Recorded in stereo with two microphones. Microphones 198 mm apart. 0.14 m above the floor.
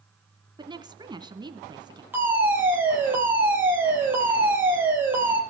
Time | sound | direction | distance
0.6 | a woman speaking | 20° right (ahead or behind) | 1.6 m
2.1 | a fire alarm | 10° right (ahead or behind) | 6.5 m